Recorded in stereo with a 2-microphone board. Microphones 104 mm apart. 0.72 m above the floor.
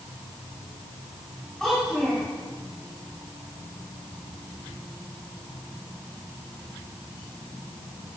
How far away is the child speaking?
About 3 m.